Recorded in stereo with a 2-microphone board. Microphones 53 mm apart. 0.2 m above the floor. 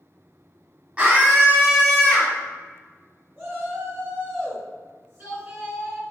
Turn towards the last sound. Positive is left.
turn(degrees=-40)  # may be behind; listen again after turning